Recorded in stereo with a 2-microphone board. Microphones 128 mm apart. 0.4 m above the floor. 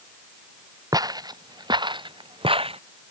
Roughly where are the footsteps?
Right.